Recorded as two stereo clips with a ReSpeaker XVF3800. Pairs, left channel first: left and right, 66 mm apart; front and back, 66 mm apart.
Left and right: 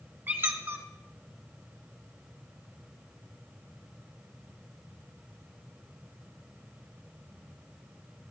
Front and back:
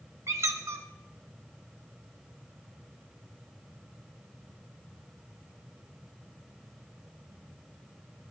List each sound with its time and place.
0.3 s a squeak: 145° right, 0.7 m